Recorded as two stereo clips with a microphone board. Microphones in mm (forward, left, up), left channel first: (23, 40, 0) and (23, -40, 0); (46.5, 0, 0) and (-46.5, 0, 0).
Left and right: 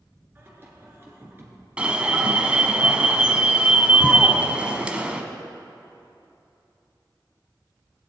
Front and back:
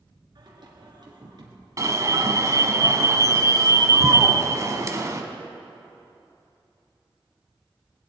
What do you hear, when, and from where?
0.3 s singing: 150° right, 2.5 m
1.8 s an alarm: 155° right, 1.1 m